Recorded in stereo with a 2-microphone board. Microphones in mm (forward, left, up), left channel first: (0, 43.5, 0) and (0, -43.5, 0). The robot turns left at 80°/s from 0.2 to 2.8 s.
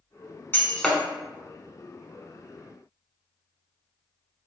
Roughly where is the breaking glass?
Left.